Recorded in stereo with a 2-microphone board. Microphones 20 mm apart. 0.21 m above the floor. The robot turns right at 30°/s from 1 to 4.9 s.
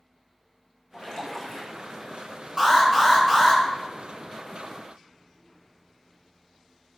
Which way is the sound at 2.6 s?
5° right.